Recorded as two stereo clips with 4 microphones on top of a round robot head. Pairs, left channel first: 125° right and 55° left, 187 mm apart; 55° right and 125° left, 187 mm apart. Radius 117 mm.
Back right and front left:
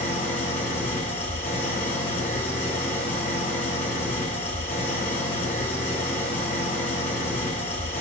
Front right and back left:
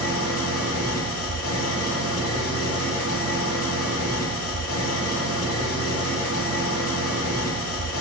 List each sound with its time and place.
0.0 s an engine running: 45° right, 1.8 m